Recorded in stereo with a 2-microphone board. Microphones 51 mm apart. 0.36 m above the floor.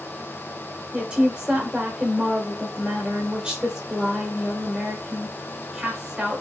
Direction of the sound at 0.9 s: 20° right (ahead or behind).